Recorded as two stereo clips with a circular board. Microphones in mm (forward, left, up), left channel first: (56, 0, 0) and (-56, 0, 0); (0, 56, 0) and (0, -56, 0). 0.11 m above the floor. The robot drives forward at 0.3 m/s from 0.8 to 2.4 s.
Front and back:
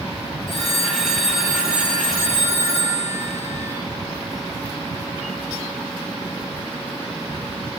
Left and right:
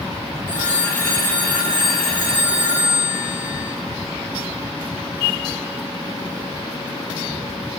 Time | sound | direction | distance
0.5 | a phone ringing | 20° right | 1.7 m